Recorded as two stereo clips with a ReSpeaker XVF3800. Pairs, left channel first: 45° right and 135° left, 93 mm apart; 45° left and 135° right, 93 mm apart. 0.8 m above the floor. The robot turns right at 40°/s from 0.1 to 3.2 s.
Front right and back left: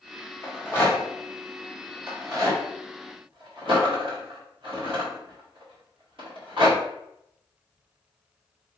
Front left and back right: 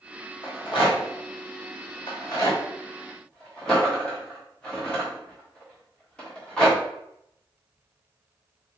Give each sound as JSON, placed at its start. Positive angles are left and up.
{"t": 0.4, "sound": "a rattle", "azimuth_deg": 15, "distance_m": 2.0}